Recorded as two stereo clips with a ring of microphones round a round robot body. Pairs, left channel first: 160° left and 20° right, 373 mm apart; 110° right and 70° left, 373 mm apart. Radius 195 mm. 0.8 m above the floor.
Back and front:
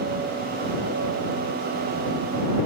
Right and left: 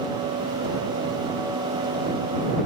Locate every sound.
Only background noise.